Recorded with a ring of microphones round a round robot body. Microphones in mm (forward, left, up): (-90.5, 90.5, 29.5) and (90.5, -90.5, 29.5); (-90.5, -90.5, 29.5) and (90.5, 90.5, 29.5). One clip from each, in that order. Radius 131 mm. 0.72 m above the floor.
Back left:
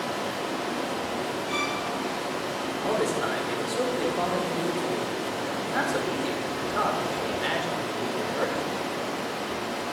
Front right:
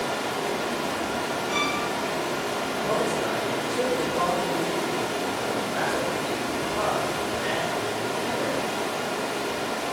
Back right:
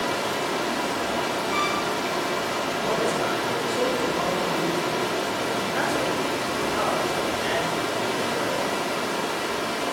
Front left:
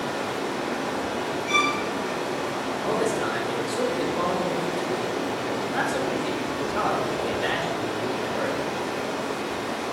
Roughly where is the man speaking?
Behind left.